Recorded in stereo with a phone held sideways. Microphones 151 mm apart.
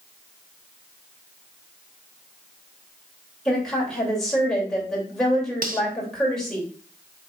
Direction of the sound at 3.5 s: 5° left (ahead or behind).